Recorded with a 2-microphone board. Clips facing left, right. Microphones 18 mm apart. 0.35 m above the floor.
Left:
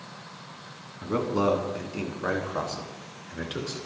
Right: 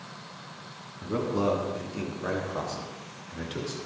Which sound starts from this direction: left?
A man speaking, at 1.0 s.